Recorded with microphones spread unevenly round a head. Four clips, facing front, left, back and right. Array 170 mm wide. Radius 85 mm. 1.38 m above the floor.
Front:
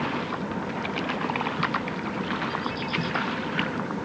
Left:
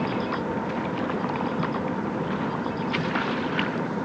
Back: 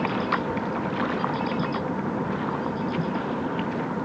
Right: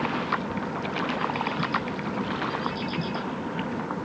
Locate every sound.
Only background noise.